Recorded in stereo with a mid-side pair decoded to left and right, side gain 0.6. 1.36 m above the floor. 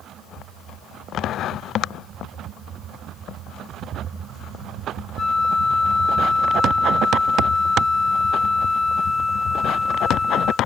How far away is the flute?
About 0.9 m.